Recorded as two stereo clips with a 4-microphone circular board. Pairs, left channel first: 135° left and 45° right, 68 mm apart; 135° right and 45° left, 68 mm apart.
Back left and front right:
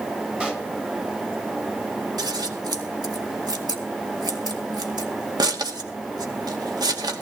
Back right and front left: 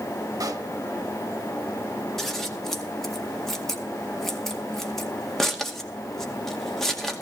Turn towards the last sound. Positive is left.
turn(degrees=-50)